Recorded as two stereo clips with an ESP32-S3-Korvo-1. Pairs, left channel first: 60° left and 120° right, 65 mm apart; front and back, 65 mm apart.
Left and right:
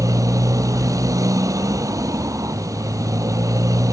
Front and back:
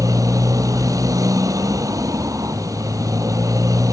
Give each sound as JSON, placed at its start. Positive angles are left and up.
{"t": 0.0, "sound": "a motorcycle", "azimuth_deg": -150}